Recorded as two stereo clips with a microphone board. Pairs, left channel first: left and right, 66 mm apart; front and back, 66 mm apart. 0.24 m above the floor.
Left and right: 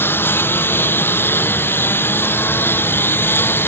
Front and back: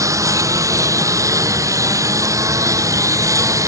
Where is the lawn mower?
145° left.